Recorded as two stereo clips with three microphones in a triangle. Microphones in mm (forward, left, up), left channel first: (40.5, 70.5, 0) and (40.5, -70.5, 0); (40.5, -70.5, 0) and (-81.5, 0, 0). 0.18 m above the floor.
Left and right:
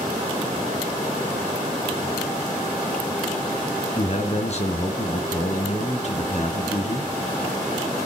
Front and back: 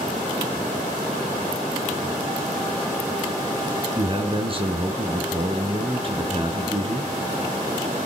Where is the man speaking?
110° left, 2.5 m.